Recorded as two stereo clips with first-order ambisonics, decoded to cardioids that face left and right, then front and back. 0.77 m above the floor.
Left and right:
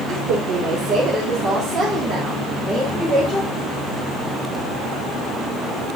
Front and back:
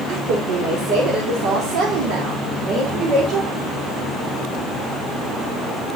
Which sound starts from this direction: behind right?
A woman speaking, at 0.1 s.